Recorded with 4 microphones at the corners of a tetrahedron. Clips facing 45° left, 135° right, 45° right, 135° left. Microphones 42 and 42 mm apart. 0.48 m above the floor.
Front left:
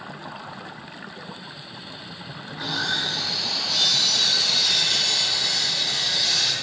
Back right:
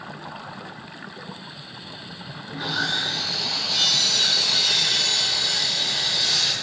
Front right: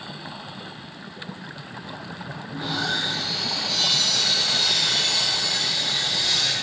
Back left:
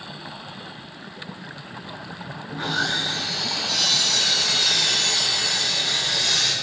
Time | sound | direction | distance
2.5 | sawing | 140° left | 6.5 m